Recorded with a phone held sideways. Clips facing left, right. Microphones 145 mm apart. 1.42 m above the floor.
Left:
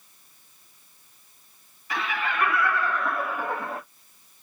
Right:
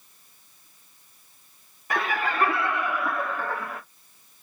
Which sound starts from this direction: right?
Laughter, at 1.9 s.